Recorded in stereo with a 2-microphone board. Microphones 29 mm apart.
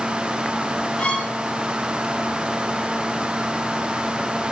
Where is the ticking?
I don't hear ticking.